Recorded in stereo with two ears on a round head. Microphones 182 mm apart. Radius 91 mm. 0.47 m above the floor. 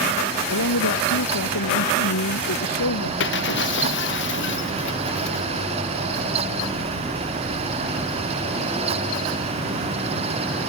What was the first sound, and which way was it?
A man speaking, 85° left.